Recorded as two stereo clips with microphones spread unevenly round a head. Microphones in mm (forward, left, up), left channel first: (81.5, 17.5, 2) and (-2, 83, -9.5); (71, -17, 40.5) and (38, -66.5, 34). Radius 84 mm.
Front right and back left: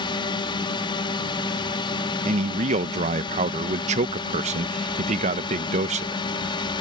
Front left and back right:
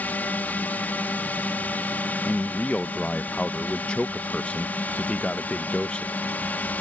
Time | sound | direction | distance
0.0 | a drone | 5° right | ?
2.2 | a man speaking | 135° left | ?